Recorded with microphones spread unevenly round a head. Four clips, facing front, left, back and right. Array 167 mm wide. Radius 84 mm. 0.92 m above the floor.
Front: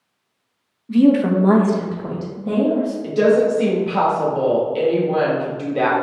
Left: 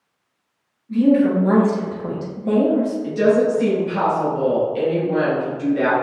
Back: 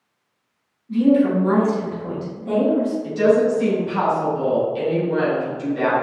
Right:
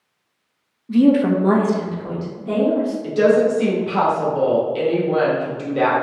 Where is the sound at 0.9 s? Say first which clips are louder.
Right 1 dB, front 2 dB; 55° right, 1.1 m; by 2.9 s 65° left, 1.5 m.